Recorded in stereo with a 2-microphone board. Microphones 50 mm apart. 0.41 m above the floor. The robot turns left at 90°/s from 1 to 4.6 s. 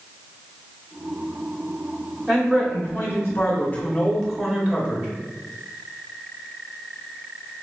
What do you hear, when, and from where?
2.3 s a man speaking: 175° right, 1.8 m; by 5.1 s 25° right, 1.8 m